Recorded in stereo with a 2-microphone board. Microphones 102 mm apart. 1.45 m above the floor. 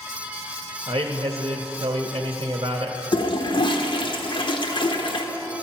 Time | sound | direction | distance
0.9 | a man speaking | 50° right (ahead or behind) | 0.8 m
3.1 | a toilet flushing | 50° left (ahead or behind) | 1.1 m